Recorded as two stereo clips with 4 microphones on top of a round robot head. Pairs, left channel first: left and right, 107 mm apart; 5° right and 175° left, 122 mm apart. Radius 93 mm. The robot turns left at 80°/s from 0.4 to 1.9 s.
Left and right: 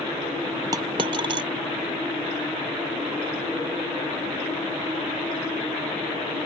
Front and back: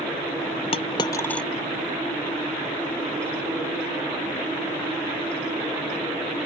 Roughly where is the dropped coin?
Ahead right.